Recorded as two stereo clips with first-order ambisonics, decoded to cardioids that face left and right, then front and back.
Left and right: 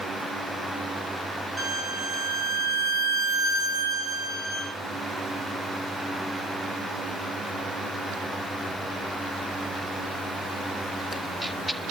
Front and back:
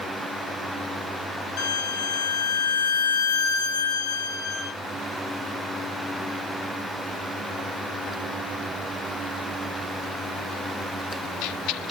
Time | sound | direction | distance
1.6 | a violin | 10° right | 1.6 m